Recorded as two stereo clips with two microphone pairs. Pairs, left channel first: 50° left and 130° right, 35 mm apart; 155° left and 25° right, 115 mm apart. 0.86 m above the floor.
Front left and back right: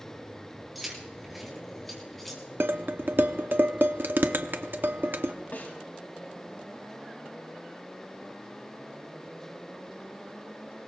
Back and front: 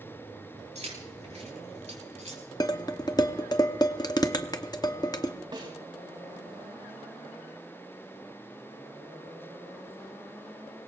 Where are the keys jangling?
40° right, 5 m; by 2.4 s 35° right, 5 m.